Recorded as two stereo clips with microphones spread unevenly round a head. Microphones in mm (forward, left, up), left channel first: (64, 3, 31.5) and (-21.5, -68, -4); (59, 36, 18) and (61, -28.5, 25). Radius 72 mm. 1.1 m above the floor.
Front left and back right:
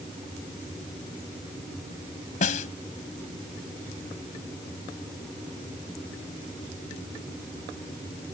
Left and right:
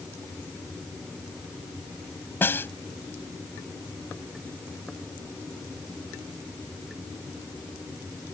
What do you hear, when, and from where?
2.4 s a snare drum: 35° left